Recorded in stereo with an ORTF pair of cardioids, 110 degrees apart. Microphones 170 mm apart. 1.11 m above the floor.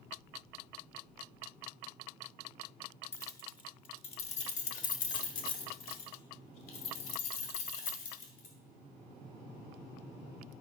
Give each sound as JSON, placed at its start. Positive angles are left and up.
{"t": 3.1, "sound": "keys jangling", "azimuth_deg": 15, "distance_m": 1.0}